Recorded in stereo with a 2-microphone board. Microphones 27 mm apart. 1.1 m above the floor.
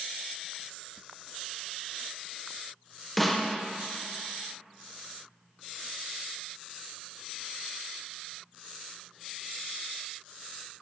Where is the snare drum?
5° left (ahead or behind), 0.7 m.